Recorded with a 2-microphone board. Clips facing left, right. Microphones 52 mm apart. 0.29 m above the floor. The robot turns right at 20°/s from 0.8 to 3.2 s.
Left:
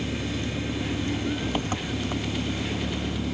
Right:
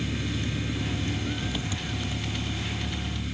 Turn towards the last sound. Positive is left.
turn(degrees=80)